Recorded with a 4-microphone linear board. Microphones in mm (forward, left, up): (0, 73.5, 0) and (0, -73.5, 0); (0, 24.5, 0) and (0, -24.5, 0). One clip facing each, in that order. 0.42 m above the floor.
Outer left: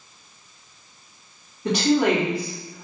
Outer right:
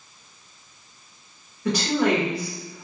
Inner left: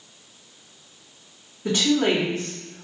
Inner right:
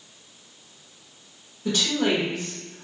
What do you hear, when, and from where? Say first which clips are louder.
1.6 s a woman speaking: outer left 2 dB, inner left 3 dB; 25° left (ahead or behind), 1.0 m